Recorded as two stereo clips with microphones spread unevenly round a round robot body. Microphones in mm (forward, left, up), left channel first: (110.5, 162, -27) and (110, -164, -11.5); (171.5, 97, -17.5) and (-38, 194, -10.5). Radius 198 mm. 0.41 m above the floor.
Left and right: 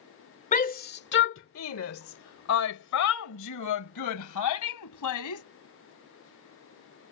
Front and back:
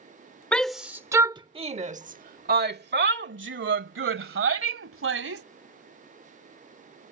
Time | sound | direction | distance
0.5 | a shout | 55° left | ?